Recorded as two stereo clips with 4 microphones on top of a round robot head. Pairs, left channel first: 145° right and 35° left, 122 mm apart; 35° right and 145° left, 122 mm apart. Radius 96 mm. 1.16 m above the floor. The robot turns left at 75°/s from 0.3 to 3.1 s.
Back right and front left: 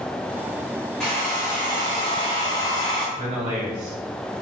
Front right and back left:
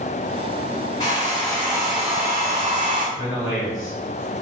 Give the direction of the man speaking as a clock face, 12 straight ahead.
10 o'clock.